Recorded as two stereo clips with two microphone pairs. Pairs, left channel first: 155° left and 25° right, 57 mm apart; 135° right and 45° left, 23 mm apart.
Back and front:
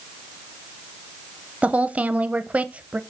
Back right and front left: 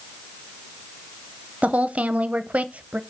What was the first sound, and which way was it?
A woman speaking, 40° left.